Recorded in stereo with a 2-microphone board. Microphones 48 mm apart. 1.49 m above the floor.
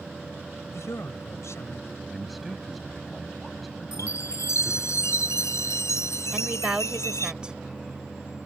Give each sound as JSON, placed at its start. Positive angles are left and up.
{"t": 0.7, "sound": "a man speaking", "side_deg": 70}
{"t": 2.1, "sound": "a man speaking", "side_deg": 0}
{"t": 3.9, "sound": "a chime", "side_deg": 85}
{"t": 6.3, "sound": "a woman speaking", "side_deg": -20}